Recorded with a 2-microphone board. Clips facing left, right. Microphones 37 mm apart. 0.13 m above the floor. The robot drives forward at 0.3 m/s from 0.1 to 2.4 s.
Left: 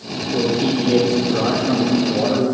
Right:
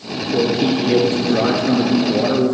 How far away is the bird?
I don't hear a bird.